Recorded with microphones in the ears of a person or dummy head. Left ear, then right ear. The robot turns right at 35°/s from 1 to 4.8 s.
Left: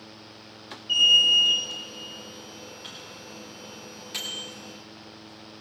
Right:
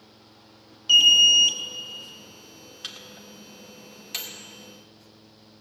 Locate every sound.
0.9 s an alarm: 70° right (ahead or behind), 2 m; by 1.6 s 50° right (ahead or behind), 2 m
2.8 s a microwave: 60° right (ahead or behind), 2 m; by 4.4 s 5° right (ahead or behind), 2 m